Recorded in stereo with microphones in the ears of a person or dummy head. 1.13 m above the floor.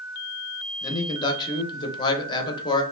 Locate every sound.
0.8 s a man speaking: 20° left (ahead or behind), 0.7 m